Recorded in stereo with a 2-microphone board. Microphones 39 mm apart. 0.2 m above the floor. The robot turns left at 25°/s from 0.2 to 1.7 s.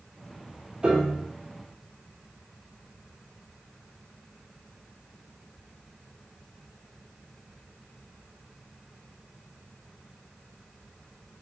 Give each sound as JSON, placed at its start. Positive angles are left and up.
{"t": 0.8, "sound": "a piano", "side_deg": -20, "distance_m": 1.0}